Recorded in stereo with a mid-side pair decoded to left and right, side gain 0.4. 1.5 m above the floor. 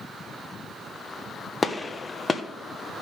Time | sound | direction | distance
1.6 | a gunshot | 30° left | 1.1 m